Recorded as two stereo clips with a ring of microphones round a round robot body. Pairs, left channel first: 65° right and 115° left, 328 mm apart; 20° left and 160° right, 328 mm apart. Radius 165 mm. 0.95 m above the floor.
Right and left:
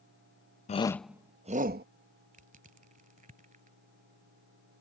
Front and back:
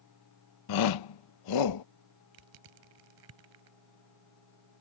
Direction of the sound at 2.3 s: Straight behind.